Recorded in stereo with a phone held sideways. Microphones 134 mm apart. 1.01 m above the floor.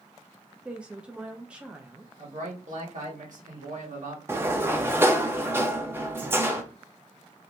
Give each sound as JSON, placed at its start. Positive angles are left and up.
{"t": 0.7, "sound": "a woman speaking", "side_deg": -10, "distance_m": 0.6}
{"t": 2.2, "sound": "a man speaking", "side_deg": -70, "distance_m": 1.7}
{"t": 4.3, "sound": "a sliding door", "side_deg": -15, "distance_m": 0.6}